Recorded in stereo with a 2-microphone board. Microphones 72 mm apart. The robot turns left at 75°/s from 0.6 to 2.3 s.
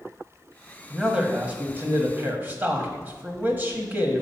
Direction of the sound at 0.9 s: 5° right (ahead or behind).